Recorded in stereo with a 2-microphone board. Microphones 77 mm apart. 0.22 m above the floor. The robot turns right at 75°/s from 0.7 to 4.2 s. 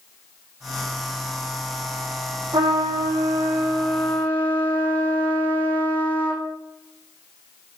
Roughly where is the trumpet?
Right.